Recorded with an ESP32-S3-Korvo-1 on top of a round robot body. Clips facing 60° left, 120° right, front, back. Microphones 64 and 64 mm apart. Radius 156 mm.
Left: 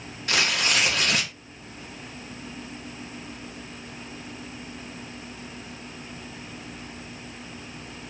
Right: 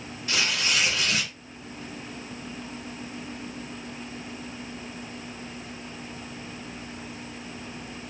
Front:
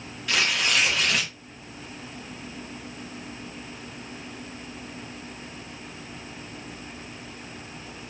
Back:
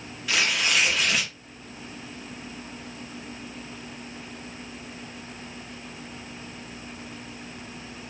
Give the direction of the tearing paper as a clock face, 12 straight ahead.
9 o'clock.